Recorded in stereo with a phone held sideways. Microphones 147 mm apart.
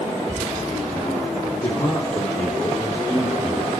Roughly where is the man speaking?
Left.